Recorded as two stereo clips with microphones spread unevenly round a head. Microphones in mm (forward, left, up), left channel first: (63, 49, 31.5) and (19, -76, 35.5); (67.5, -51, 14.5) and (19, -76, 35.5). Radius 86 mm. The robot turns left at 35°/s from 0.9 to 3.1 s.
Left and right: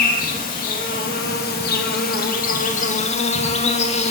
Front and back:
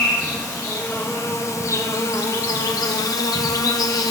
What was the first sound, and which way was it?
An insect, 110° left.